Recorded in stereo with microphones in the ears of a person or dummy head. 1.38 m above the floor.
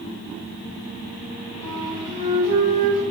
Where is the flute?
20° left (ahead or behind), 2.5 m.